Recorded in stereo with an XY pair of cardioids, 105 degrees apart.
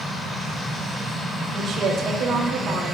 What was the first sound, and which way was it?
A woman speaking, 65° right.